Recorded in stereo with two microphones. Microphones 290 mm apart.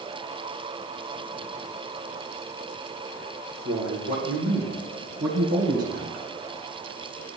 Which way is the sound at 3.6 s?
70° right (ahead or behind).